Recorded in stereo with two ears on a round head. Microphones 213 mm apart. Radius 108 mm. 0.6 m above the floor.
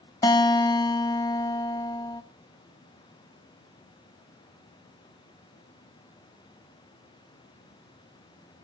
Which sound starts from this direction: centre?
A guitar, at 0.2 s.